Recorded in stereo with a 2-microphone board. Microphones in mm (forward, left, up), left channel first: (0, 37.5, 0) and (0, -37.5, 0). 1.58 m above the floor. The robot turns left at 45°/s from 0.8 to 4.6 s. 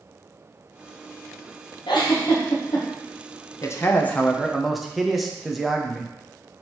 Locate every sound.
1.9 s a giggle: 85° left, 1.0 m; by 2.9 s 45° left (ahead or behind), 1.0 m
3.6 s a man speaking: 40° left, 0.6 m; by 6.1 s straight ahead, 0.6 m